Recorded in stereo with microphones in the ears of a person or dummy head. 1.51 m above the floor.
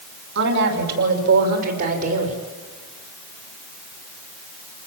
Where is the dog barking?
No dog barking in this recording.